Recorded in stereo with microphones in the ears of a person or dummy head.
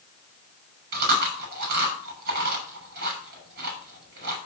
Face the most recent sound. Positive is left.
turn(degrees=-50)  # may be behind; listen again after turning